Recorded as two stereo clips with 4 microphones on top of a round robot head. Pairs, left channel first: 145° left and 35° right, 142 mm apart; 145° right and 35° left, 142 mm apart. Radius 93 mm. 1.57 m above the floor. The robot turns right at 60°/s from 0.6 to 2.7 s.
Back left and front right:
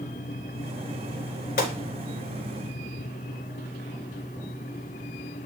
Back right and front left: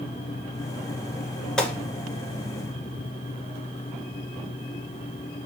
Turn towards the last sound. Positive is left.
turn(degrees=-165)